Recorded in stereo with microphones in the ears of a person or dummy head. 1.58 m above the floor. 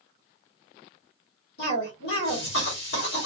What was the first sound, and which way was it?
A cough, 55° left (ahead or behind).